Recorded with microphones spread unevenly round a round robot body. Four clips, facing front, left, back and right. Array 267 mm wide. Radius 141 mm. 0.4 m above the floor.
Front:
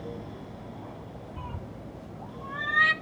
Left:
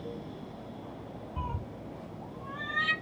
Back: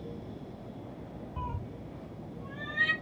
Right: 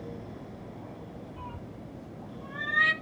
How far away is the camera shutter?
I don't hear a camera shutter.